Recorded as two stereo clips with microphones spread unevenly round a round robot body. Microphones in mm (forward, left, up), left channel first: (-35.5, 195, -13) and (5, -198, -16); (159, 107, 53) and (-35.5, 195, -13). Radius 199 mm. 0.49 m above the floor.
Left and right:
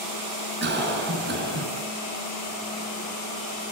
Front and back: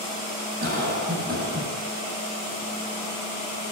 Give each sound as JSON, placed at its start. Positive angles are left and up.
{"t": 0.6, "sound": "a cough", "azimuth_deg": -150, "distance_m": 6.0}